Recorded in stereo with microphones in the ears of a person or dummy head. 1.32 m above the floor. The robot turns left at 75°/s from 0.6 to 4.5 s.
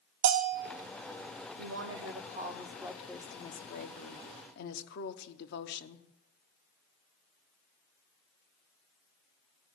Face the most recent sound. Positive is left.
turn(degrees=65)